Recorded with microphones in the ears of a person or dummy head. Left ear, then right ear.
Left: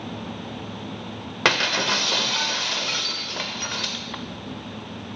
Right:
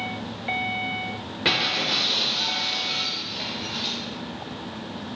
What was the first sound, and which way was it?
Breaking glass, 45° left (ahead or behind).